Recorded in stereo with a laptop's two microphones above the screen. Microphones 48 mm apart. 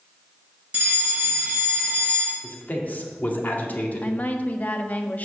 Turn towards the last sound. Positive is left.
turn(degrees=40)  # may be behind; listen again after turning